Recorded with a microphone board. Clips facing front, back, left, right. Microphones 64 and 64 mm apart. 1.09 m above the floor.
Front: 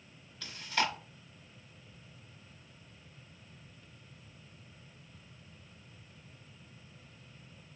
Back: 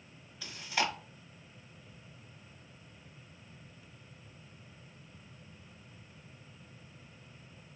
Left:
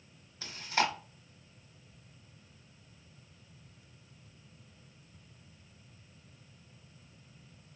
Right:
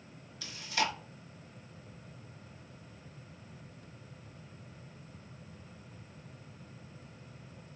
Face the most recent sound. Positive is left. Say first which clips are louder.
# front 1 dB, left 2 dB
turn(degrees=105)